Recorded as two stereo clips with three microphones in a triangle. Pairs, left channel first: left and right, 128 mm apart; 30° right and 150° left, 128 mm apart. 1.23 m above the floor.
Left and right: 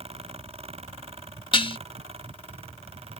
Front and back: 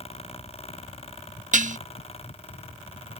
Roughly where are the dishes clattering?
Behind left.